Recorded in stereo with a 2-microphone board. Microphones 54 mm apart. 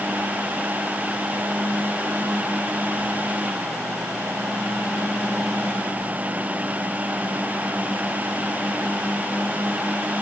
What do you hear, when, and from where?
Only background noise.